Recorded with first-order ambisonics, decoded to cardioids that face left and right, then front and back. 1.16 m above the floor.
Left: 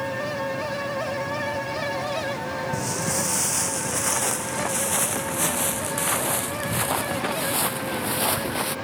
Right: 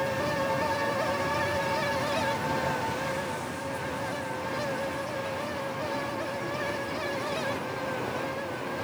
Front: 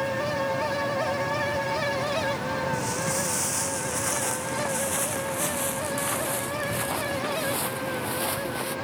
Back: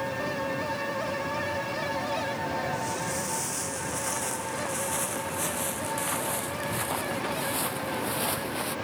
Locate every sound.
2.7 s footsteps: 70° left; by 8.7 s 90° left